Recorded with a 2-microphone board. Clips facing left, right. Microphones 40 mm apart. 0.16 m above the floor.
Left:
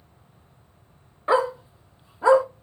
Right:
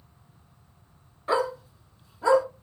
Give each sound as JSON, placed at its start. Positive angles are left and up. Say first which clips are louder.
{"t": 1.3, "sound": "a dog barking", "louder": "left 4 dB", "side_deg": 25, "distance_m": 0.7}